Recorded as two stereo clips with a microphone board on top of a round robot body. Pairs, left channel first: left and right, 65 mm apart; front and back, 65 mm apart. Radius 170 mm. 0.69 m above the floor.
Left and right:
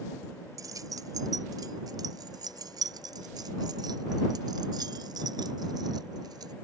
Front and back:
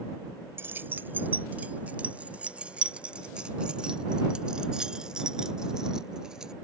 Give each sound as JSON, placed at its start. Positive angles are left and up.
{"t": 0.6, "sound": "keys jangling", "azimuth_deg": -125}